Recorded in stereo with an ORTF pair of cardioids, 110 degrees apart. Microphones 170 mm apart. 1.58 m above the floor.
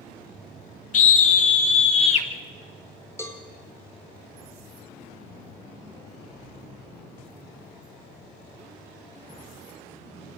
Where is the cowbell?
15° left, 3.5 m.